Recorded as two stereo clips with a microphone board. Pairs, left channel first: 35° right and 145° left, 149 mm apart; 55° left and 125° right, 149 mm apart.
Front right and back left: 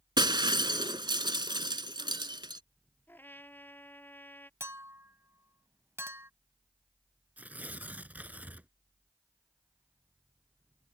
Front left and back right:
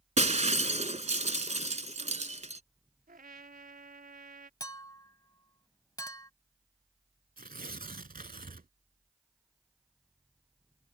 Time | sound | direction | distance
0.2 | breaking glass | 160° right | ?
3.1 | a trumpet | 110° right | ?
4.6 | a clink | 90° left | ?
7.4 | tearing paper | 135° right | ?